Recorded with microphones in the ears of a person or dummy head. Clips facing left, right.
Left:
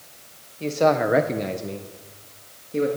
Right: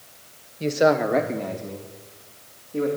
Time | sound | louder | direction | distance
0.6 | a man speaking | right 1 dB | 20° right (ahead or behind) | 0.8 m